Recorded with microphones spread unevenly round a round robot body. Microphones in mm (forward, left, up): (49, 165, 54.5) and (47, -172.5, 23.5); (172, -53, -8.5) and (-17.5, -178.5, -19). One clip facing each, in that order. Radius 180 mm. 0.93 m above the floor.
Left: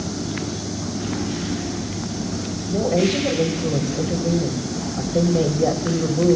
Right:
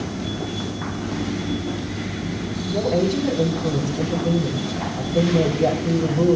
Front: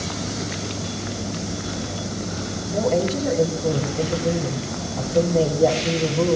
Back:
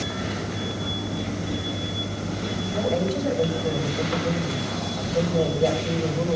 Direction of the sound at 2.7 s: 10° right.